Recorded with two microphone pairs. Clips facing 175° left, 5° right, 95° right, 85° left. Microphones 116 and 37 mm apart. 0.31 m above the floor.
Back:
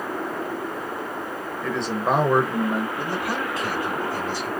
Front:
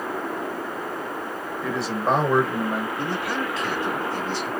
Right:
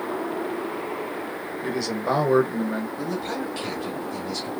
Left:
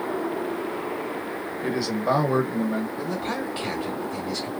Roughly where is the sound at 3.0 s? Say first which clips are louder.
Even, even; behind left.